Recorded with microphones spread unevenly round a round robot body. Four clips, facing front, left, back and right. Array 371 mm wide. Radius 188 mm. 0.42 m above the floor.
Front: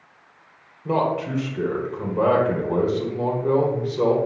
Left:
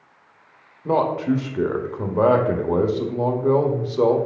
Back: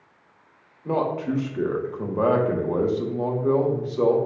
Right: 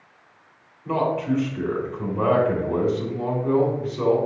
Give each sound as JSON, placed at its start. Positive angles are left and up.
{"t": 0.8, "sound": "a man speaking", "azimuth_deg": 75, "distance_m": 1.4}